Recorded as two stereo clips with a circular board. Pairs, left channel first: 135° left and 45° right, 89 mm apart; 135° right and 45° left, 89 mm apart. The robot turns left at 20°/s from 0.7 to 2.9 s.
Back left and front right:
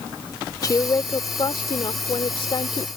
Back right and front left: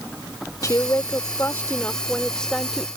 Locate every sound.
0.6 s a woman speaking: straight behind; by 2.9 s 135° left